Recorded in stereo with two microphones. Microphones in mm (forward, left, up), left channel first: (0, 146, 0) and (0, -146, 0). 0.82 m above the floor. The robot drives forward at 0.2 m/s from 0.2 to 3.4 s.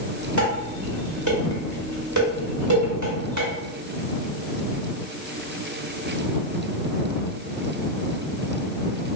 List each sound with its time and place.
0.4 s dishes clattering: 80° right, 1.2 m; by 3.5 s 70° right (ahead or behind), 1.3 m